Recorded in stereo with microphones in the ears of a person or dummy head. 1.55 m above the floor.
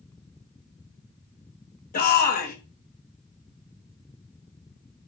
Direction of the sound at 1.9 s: 40° left (ahead or behind).